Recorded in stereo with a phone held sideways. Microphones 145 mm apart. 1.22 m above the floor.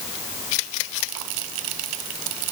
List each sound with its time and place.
Only background noise.